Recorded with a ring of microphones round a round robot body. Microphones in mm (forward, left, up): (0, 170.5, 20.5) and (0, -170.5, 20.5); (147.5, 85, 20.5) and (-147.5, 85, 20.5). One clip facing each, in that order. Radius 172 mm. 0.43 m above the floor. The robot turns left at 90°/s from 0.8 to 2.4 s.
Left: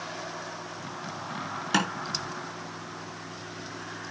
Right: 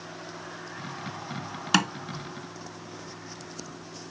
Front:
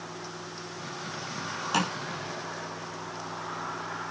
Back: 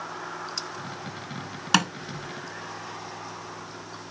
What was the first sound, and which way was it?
Tapping, 150° right.